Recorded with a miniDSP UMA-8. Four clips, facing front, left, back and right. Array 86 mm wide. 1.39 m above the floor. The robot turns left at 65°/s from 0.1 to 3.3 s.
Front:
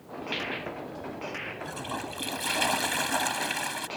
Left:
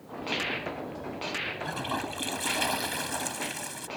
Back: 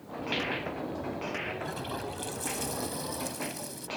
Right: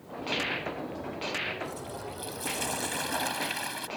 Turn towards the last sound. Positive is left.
turn(degrees=-20)